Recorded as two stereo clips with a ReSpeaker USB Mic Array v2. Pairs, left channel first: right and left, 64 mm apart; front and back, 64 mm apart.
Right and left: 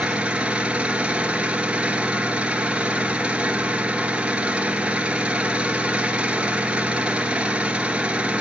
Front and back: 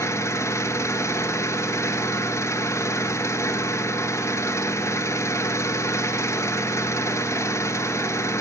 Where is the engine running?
25° left, 0.9 m.